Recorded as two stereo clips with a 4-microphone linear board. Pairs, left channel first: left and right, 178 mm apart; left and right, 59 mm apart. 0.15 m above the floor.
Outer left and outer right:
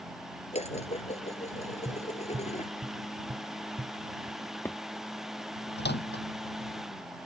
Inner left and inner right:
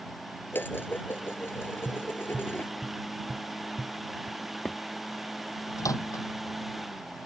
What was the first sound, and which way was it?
Dishes clattering, 40° left (ahead or behind).